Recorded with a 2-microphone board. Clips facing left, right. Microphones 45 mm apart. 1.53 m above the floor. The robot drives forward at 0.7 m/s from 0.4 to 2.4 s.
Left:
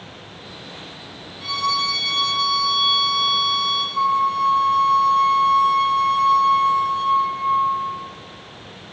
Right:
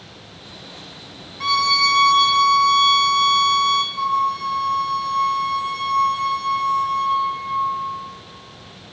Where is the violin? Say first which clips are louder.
Right 5 dB; 75° right (ahead or behind), 0.7 m; by 3.8 s 50° right (ahead or behind), 0.8 m.